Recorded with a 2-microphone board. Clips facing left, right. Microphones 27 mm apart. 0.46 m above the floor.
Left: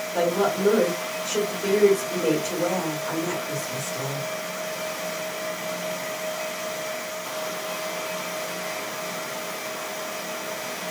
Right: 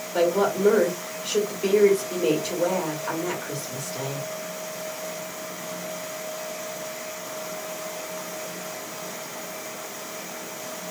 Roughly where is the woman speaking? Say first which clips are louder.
Right 1 dB; right.